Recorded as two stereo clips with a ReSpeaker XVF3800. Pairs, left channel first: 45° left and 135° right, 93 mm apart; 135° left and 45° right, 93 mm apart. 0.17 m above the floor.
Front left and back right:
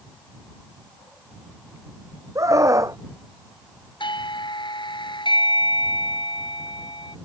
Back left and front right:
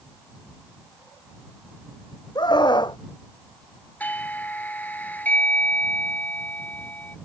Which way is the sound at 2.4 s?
170° left.